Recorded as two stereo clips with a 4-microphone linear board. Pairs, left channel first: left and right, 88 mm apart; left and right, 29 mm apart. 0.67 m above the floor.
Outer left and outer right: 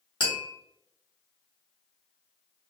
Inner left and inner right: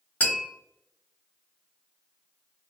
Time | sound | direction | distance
0.2 | tapping | 65° left (ahead or behind) | 1.4 m